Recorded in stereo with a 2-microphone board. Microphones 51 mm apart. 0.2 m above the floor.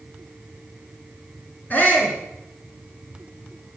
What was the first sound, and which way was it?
A shout, 35° left (ahead or behind).